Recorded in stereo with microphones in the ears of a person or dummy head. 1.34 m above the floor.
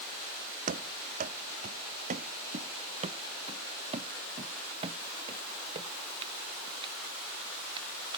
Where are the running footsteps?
50° right (ahead or behind); by 8.2 s 30° right (ahead or behind).